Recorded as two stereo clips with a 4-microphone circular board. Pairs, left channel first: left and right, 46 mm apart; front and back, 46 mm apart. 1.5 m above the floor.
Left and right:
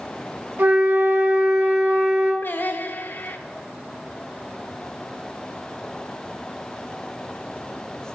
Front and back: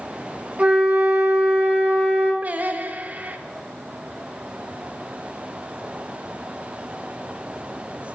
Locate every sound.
0.6 s a flute: 130° right, 1.3 m
2.4 s singing: 130° left, 0.5 m